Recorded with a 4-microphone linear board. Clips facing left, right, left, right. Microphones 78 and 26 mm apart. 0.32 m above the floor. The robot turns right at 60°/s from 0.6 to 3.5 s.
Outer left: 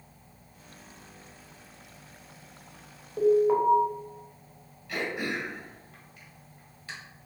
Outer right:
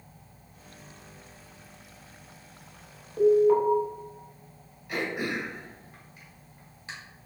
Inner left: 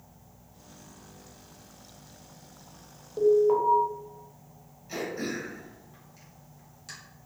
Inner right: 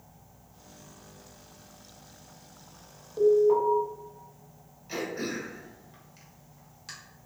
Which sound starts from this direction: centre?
An alarm, at 3.2 s.